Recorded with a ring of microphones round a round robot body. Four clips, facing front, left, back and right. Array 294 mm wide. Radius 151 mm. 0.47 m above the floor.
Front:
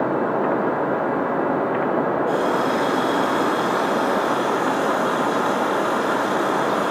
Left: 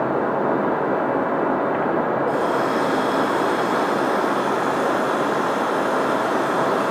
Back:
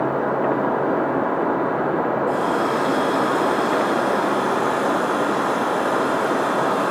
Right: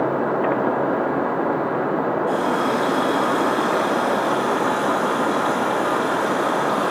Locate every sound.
2.3 s a running tap: 105° right, 10 m